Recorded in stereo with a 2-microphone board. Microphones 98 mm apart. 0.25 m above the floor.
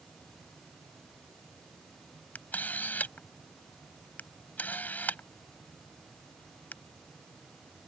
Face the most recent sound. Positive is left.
turn(degrees=15)  # may be behind; listen again after turning